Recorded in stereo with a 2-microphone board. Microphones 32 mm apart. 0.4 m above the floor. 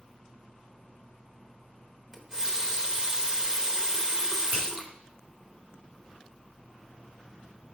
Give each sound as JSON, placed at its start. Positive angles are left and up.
{"t": 2.1, "sound": "a running tap", "side_deg": -20, "distance_m": 0.8}
{"t": 4.5, "sound": "a finger snap", "side_deg": -65, "distance_m": 3.0}